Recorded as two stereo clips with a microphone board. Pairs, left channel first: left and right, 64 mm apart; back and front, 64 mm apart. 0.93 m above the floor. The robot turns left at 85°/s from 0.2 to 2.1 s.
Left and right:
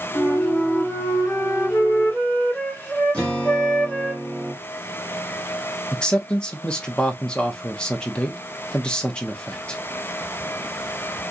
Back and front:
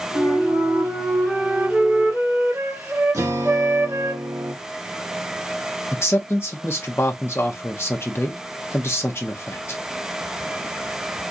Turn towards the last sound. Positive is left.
turn(degrees=160)